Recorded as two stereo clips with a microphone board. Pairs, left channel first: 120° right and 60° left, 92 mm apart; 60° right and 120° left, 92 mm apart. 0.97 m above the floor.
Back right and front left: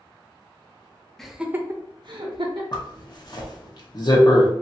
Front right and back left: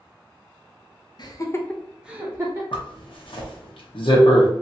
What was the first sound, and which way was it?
Laughter, 35° right.